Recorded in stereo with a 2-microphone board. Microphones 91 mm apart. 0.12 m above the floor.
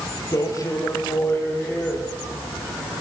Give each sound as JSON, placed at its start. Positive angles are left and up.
{"t": 0.3, "sound": "a man speaking", "side_deg": 40, "distance_m": 5.0}